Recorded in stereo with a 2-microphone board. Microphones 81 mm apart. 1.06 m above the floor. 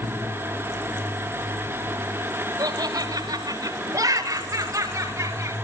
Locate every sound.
2.6 s laughter: 45° right (ahead or behind), 4.5 m; by 5.5 s 25° right (ahead or behind), 6.5 m